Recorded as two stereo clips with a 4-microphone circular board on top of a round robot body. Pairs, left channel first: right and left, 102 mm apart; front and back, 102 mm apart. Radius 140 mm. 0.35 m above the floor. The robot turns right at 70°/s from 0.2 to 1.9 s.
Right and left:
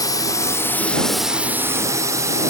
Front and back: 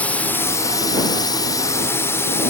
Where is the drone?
70° right; by 2.5 s 50° left.